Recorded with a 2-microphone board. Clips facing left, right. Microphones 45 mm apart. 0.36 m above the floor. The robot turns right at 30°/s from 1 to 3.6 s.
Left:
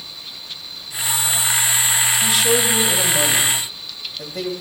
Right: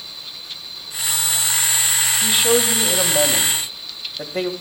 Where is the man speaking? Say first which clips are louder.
Right 2 dB; 165° right, 1.9 m; by 4.5 s 125° right, 1.9 m.